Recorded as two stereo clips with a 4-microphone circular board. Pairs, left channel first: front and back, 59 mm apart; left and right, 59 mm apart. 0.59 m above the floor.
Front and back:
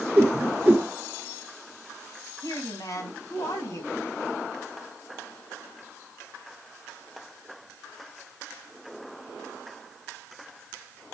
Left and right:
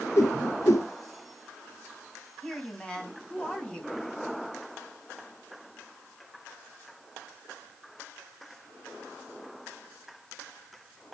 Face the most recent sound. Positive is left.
turn(degrees=20)